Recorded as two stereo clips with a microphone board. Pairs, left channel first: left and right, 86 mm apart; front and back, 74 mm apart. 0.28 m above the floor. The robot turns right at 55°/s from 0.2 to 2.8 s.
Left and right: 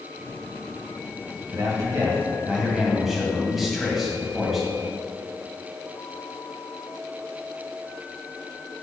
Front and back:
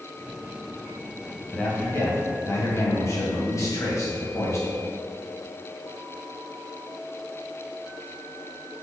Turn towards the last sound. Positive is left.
turn(degrees=-5)